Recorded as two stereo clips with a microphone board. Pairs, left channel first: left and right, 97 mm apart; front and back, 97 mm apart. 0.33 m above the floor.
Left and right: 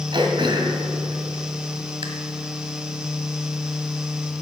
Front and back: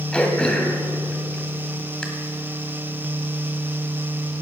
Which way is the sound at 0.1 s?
80° right.